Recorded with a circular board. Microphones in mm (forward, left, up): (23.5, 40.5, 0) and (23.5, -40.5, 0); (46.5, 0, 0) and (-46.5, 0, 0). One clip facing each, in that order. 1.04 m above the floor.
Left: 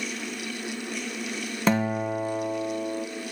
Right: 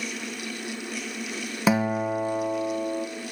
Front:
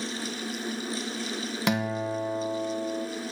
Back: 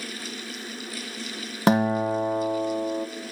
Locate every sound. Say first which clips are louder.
1.7 s a guitar: right 1 dB, back 8 dB; 165° right, 0.8 m